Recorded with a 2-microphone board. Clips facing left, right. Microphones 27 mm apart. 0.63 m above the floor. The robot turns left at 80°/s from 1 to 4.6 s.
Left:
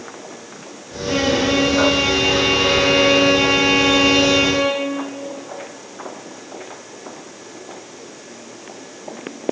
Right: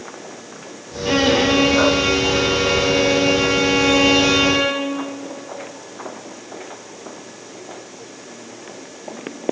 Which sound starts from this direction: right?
A violin, at 1.1 s.